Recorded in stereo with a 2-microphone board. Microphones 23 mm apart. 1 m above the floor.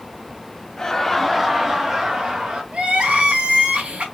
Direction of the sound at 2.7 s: 50° right (ahead or behind).